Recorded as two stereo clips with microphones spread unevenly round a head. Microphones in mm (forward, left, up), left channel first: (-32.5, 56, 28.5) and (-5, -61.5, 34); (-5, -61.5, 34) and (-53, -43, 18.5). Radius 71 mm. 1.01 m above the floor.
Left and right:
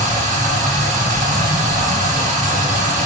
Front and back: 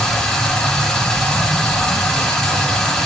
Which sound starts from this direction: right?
Running water, at 0.0 s.